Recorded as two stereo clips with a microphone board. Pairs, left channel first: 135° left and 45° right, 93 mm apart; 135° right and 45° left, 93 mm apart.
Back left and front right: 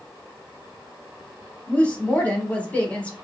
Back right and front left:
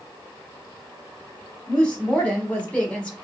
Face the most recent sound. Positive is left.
turn(degrees=180)